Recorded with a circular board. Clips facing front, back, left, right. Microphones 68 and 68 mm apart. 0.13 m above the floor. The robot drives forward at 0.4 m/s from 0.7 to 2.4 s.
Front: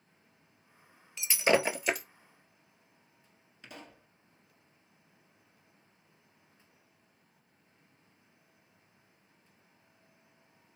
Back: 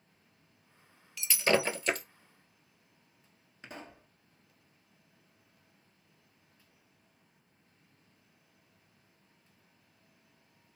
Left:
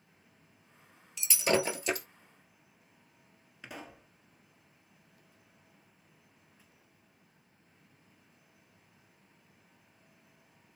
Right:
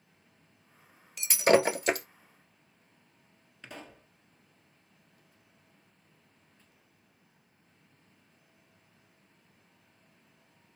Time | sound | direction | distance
1.2 | breaking glass | 60° right | 1.1 m
3.6 | a pop | 165° left | 1.4 m